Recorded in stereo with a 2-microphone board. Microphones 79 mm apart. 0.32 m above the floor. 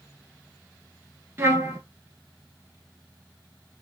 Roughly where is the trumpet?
Right.